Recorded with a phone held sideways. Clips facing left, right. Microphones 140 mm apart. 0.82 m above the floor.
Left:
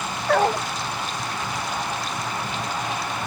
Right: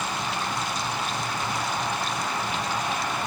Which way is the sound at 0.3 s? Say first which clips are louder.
Left 10 dB; 65° left (ahead or behind).